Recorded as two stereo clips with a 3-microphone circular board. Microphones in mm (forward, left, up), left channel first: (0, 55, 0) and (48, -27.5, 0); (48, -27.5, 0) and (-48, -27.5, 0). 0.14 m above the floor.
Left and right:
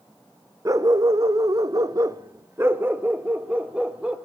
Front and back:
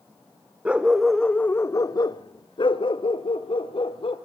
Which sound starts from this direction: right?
A dog barking, at 0.7 s.